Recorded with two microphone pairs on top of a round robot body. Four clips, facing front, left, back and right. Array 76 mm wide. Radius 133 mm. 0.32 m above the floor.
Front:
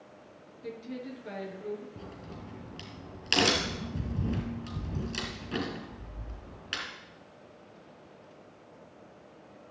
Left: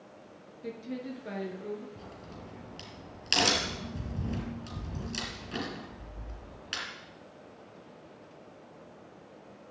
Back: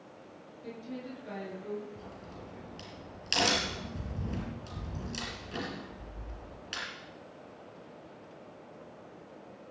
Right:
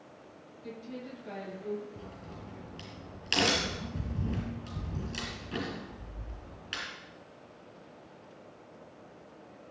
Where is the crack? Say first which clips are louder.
Even, front 1 dB; straight ahead, 5.5 m.